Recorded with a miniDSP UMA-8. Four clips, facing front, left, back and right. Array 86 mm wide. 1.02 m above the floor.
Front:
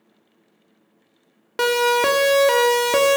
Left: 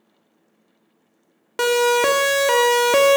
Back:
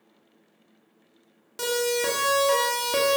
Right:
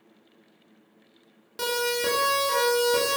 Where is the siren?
40° left, 2.5 m; by 3.2 s 65° left, 1.8 m.